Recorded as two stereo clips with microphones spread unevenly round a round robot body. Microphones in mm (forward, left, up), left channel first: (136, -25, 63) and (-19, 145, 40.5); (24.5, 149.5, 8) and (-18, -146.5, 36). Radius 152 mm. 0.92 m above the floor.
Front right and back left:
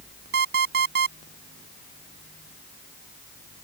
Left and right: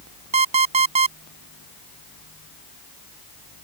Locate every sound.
0.3 s an alarm clock: 170° right